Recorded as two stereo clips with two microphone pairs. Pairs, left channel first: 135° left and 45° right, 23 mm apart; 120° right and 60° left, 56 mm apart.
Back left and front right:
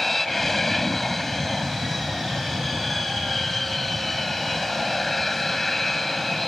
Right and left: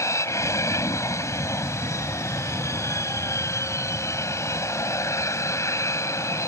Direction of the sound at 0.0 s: 145° right.